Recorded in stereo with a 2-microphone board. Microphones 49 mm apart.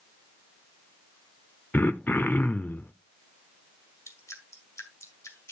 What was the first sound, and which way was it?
Throat clearing, 45° left (ahead or behind).